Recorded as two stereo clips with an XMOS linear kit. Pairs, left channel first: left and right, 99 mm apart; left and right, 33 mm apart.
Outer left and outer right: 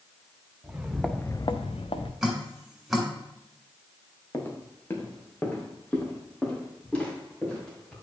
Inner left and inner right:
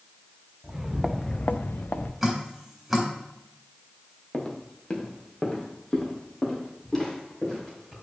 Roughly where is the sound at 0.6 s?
Centre.